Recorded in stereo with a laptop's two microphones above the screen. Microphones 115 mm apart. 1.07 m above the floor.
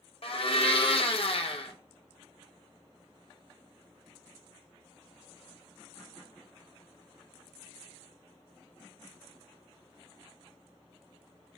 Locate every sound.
0.2 s a blender: 55° left (ahead or behind), 0.5 m